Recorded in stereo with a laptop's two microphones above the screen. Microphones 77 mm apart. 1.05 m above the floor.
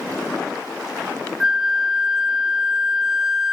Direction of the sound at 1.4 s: 5° right (ahead or behind).